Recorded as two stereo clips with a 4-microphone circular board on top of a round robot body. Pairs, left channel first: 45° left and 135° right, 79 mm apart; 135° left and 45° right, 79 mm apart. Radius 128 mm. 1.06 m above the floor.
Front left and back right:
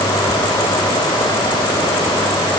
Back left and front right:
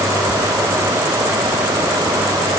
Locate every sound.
Only background noise.